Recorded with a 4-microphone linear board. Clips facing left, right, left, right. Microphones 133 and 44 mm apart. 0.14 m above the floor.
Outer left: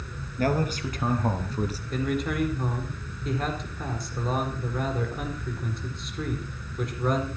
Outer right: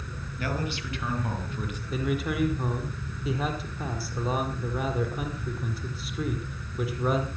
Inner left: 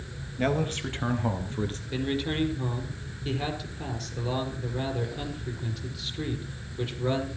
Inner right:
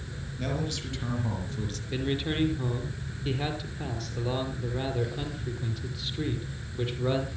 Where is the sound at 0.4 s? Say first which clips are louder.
Outer left 6 dB, inner left 6 dB; 45° left (ahead or behind), 3.5 m; by 1.8 s 35° left (ahead or behind), 2.5 m.